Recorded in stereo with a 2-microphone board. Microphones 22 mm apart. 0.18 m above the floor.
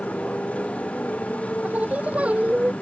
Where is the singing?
75° right (ahead or behind).